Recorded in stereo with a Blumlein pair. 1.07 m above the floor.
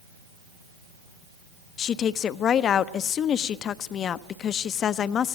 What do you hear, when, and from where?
1.8 s a woman speaking: 30° left, 0.6 m